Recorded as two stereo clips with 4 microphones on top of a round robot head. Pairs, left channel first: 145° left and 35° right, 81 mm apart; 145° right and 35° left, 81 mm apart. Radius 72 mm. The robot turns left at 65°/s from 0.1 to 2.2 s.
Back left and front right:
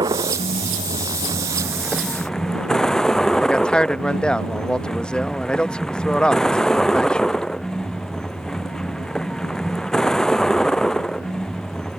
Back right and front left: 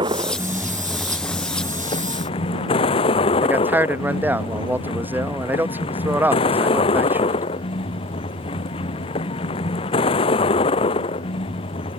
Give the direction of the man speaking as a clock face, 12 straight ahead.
9 o'clock.